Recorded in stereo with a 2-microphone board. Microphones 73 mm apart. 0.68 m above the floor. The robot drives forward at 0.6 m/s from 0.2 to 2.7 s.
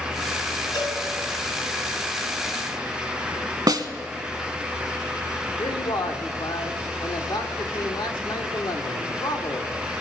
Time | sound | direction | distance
0.7 | a cowbell | 75° left (ahead or behind) | 5 m
3.7 | a snare drum | 55° right (ahead or behind) | 0.9 m
5.6 | a man speaking | 65° left (ahead or behind) | 1.5 m